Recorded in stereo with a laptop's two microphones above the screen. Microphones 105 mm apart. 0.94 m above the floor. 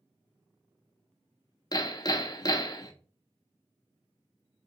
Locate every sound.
1.7 s hammering: 40° left (ahead or behind), 0.5 m